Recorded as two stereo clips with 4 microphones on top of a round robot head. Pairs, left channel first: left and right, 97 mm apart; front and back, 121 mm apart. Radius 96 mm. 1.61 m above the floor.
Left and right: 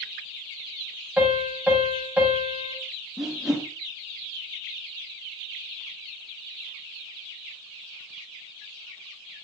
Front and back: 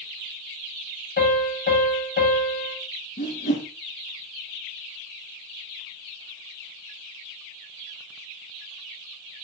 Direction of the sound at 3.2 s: 5° right.